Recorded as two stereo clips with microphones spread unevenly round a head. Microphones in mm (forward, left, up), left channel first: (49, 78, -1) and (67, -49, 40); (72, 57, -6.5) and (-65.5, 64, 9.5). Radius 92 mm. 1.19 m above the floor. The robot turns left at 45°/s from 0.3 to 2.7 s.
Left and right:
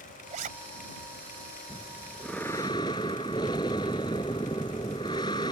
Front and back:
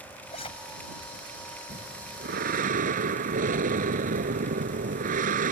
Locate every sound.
0.3 s a zipper: 60° right; by 0.5 s 70° right
1.7 s breathing: 145° right; by 5.5 s 170° left